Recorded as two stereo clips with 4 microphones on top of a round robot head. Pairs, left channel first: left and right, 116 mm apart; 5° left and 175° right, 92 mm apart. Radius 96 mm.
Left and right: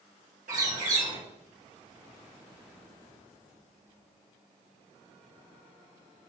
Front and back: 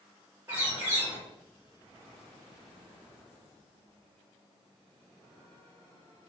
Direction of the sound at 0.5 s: 105° right.